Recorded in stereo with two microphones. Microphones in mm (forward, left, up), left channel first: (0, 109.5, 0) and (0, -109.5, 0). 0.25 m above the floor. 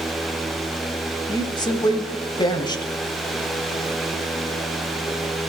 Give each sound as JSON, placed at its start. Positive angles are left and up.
{"t": 1.3, "sound": "a woman speaking", "side_deg": 20, "distance_m": 1.0}